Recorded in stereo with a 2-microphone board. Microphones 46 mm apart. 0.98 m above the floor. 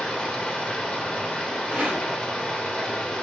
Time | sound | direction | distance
0.0 | running water | 20° left (ahead or behind) | 0.7 m
1.7 | a rattle | 25° right (ahead or behind) | 1.3 m